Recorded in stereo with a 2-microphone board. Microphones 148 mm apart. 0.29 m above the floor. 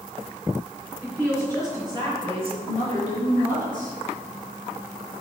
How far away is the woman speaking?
About 3 m.